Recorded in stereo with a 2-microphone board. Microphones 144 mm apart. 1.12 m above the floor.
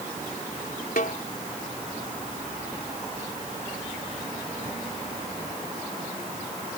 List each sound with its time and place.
1.0 s a snare drum: 75° left (ahead or behind)